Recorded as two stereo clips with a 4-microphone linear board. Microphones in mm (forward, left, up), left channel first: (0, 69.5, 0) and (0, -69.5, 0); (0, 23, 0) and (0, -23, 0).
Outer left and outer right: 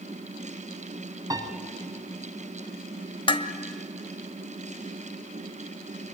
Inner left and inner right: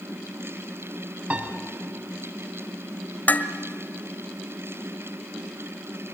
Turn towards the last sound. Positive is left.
turn(degrees=40)  # may be behind; listen again after turning